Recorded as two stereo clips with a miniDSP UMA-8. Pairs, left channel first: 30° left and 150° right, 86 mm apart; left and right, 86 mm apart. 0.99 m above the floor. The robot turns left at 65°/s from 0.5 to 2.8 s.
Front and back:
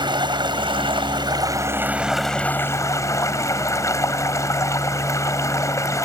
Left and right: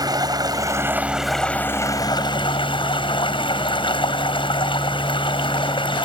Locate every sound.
0.0 s running water: 130° right; by 6.0 s 80° left